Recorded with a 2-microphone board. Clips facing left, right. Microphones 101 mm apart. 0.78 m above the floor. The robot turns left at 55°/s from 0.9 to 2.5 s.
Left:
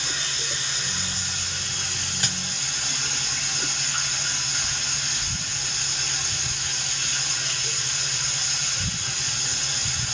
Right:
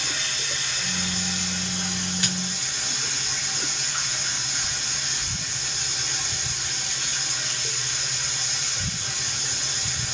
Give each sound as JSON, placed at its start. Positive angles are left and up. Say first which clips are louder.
{"t": 0.0, "sound": "running water", "louder": "even", "azimuth_deg": 155, "distance_m": 1.5}
{"t": 2.2, "sound": "a dropped coin", "louder": "left 1 dB", "side_deg": 35, "distance_m": 1.3}